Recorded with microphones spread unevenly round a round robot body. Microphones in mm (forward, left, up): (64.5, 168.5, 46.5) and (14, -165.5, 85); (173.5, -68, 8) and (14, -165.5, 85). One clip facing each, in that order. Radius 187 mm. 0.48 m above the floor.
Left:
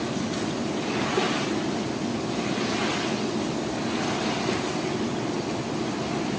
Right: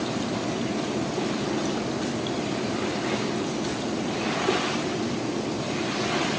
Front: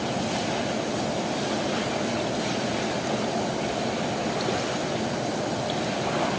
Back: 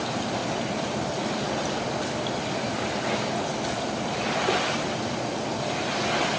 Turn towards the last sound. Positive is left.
No sound to turn to.